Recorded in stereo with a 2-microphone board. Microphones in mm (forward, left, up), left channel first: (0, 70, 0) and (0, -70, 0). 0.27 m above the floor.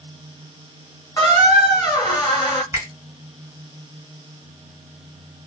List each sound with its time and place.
1.2 s a squeak: 30° left (ahead or behind), 1.1 m
2.7 s a finger snap: 25° right (ahead or behind), 1.9 m